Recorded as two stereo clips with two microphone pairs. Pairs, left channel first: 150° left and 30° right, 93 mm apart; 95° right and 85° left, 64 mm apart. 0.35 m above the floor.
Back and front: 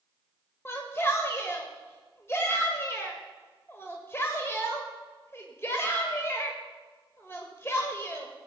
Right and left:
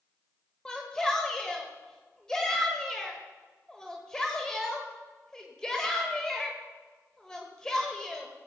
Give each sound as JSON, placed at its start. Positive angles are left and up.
{"t": 0.7, "sound": "a shout", "azimuth_deg": -165, "distance_m": 1.4}